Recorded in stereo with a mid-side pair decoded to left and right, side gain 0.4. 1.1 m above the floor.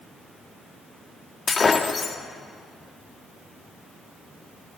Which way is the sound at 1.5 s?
45° left.